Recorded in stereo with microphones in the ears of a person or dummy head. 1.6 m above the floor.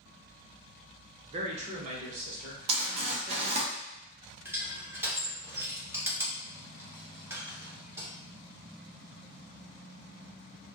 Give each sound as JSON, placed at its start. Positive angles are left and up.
{"t": 1.3, "sound": "a man speaking", "side_deg": -40, "distance_m": 0.8}
{"t": 2.7, "sound": "crumpling", "side_deg": -40, "distance_m": 0.8}
{"t": 4.5, "sound": "crushing", "side_deg": -20, "distance_m": 1.1}